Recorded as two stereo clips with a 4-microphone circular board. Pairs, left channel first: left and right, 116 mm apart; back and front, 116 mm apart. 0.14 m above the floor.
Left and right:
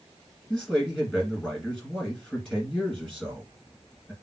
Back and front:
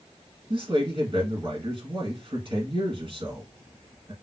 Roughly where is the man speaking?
Ahead.